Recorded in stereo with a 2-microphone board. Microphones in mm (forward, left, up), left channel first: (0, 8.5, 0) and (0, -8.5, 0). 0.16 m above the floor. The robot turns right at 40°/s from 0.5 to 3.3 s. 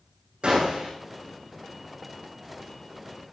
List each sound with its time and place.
0.4 s a gunshot: 65° right (ahead or behind), 5.5 m; by 0.9 s 75° right (ahead or behind), 5.5 m